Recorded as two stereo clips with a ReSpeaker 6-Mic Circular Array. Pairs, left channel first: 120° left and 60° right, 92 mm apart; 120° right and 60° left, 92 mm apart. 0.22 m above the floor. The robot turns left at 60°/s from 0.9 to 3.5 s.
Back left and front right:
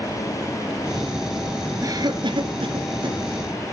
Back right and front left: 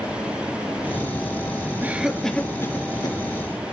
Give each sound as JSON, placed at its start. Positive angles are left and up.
{"t": 1.8, "sound": "a cough", "azimuth_deg": -10, "distance_m": 3.0}